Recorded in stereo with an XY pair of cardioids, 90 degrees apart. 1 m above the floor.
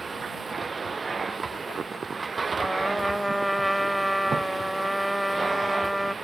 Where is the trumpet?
10° right.